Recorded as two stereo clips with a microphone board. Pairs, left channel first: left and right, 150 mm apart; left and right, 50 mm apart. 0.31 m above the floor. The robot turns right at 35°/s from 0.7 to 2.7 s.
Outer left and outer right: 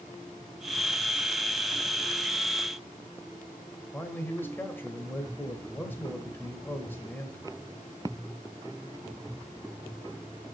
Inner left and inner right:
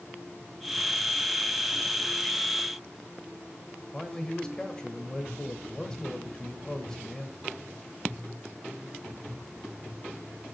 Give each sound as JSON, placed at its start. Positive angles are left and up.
{"t": 3.9, "sound": "a man speaking", "side_deg": 15, "distance_m": 1.1}